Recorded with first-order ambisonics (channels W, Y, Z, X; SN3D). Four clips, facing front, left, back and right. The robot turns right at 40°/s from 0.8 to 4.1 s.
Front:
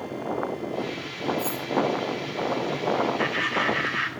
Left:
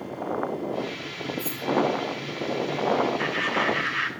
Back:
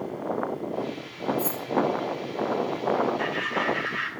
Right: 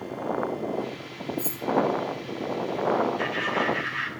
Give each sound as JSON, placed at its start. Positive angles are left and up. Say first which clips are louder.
{"t": 1.4, "sound": "keys jangling", "louder": "left 1 dB, even", "azimuth_deg": -110, "distance_m": 5.0}
{"t": 3.2, "sound": "laughter", "louder": "left 1 dB, front 2 dB", "azimuth_deg": 15, "distance_m": 0.6}